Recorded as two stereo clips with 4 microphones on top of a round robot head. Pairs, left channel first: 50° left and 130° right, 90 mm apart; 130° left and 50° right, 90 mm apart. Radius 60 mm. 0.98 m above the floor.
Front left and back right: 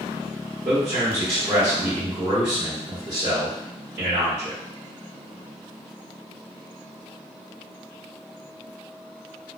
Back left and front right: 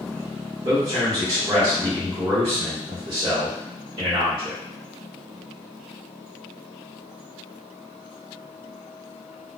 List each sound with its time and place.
0.7 s a man speaking: 85° right, 1.4 m